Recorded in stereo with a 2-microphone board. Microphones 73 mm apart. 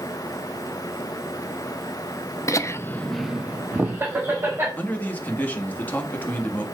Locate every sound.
2.5 s laughter: 45° left (ahead or behind), 0.8 m; by 4.7 s 35° right (ahead or behind), 2 m
4.8 s a man speaking: 25° left (ahead or behind), 1.5 m